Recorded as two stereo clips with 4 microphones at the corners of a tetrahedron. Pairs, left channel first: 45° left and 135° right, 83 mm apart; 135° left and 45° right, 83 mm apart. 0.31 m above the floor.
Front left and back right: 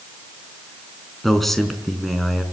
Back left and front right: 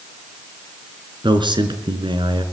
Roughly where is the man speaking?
Ahead right.